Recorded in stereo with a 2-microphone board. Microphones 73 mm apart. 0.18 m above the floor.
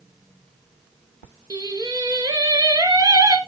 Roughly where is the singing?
Right.